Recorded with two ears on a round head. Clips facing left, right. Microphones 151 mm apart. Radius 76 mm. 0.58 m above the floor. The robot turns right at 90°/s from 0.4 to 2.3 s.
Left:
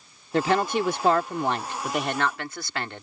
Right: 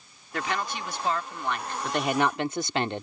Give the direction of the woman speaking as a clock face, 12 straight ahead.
11 o'clock.